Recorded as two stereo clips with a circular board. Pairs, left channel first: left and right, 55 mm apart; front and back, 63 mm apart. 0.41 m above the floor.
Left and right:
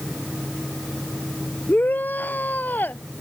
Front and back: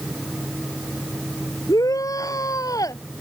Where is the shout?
30° left.